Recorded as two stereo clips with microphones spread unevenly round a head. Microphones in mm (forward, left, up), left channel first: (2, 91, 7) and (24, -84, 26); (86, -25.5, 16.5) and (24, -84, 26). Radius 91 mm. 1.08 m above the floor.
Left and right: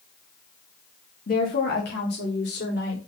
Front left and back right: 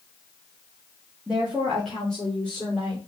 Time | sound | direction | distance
1.3 | a woman speaking | 140° left | 1.8 m